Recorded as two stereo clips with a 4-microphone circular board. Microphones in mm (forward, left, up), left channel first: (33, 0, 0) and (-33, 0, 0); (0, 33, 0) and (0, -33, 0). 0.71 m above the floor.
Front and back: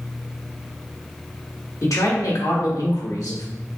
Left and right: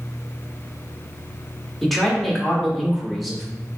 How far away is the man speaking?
About 1.0 m.